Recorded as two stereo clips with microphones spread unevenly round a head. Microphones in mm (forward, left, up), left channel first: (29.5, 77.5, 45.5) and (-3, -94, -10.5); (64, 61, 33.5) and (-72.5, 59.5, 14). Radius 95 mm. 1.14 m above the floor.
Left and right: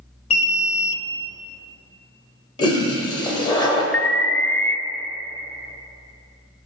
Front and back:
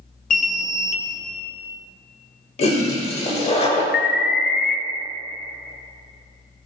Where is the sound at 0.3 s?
20° left, 0.8 m.